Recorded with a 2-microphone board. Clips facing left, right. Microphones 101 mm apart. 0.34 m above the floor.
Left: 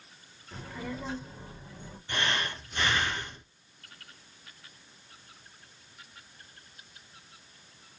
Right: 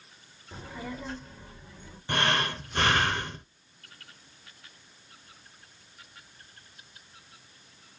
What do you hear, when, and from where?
0.5 s a child speaking: 15° right (ahead or behind), 1.0 m; by 2.0 s 40° left (ahead or behind), 1.3 m
2.1 s breathing: 55° right (ahead or behind), 0.6 m